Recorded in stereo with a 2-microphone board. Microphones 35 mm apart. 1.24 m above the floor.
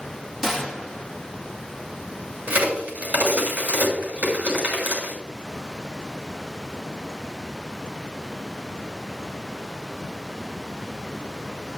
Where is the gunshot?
10° right (ahead or behind), 1.2 m.